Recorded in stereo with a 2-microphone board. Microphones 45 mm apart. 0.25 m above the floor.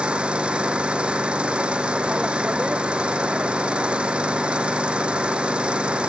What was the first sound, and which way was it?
An engine running, 20° right (ahead or behind).